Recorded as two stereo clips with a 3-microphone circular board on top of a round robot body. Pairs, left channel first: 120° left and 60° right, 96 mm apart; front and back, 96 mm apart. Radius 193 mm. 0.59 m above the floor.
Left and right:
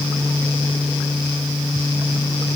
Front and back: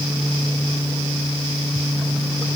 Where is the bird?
I don't hear a bird.